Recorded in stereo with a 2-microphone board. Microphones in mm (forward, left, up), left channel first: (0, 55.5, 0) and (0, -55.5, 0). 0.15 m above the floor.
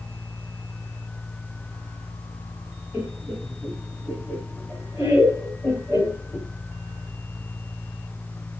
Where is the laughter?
20° right (ahead or behind), 1.4 m; by 6.5 s centre (ahead or behind), 3 m.